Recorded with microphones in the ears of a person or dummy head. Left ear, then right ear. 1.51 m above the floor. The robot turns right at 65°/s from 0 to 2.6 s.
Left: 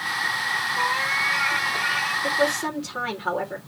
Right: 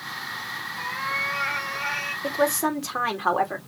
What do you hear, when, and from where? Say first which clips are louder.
0.8 s a cat meowing: left 2 dB; 110° left, 2.0 m; by 2.1 s 160° right, 2.0 m
2.2 s a woman speaking: left 1 dB; 20° right (ahead or behind), 2.5 m; by 3.6 s 40° right (ahead or behind), 2.5 m